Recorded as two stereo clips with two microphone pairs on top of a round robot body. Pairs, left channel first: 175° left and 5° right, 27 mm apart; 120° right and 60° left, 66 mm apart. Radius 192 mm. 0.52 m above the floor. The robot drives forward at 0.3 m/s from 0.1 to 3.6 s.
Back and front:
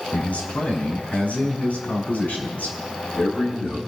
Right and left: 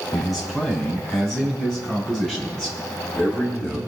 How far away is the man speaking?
About 6.5 m.